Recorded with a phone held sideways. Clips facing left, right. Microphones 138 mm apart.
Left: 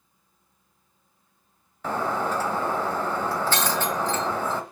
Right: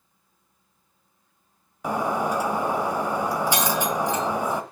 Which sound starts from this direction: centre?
Breaking glass, at 1.8 s.